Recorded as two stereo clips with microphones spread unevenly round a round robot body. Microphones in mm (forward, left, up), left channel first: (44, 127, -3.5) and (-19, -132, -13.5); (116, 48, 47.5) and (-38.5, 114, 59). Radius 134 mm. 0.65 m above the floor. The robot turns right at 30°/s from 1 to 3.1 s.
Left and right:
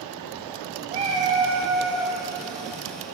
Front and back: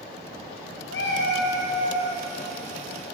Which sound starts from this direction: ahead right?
A cat meowing, at 0.9 s.